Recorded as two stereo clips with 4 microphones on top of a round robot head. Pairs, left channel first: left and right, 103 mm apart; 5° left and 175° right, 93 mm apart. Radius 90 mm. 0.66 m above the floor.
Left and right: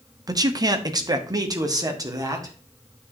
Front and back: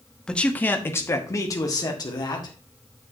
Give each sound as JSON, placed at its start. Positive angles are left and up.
{"t": 0.3, "sound": "a man speaking", "azimuth_deg": -70, "distance_m": 1.0}